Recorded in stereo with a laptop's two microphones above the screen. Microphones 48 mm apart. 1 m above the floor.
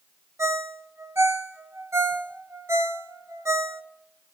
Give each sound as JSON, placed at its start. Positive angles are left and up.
{"t": 0.4, "sound": "a ringtone", "side_deg": -80, "distance_m": 0.6}